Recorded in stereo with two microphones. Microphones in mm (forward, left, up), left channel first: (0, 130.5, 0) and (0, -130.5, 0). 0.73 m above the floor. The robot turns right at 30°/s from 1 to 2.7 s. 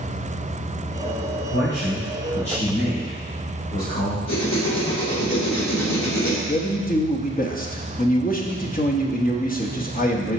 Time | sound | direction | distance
1.5 | a man speaking | 25° left | 3.5 m
4.3 | writing | 75° left (ahead or behind) | 2.5 m
6.5 | a man speaking | 35° left (ahead or behind) | 1.0 m